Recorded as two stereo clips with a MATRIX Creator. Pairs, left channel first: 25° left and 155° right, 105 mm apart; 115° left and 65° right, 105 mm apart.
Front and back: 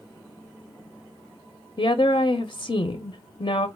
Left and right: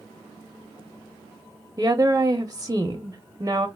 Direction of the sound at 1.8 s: 10° right.